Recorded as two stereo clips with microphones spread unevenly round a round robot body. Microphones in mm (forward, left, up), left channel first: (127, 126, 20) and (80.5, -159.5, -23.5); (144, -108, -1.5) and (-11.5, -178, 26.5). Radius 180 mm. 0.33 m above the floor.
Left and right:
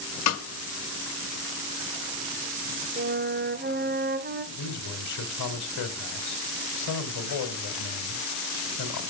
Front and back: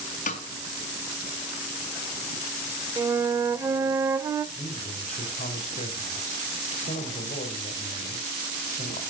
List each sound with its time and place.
0.3 s a snare drum: 50° left, 1.8 m
3.0 s a flute: 80° right, 0.9 m
4.5 s a man speaking: 65° left, 2 m